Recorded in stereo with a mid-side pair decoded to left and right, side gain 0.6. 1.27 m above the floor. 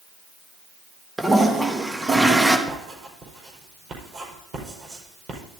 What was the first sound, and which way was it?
A toilet flushing, 15° right.